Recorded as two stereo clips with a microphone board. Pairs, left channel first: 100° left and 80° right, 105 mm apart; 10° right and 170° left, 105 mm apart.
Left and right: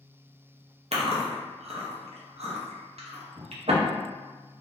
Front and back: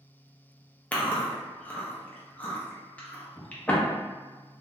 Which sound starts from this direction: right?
Chewing, at 0.9 s.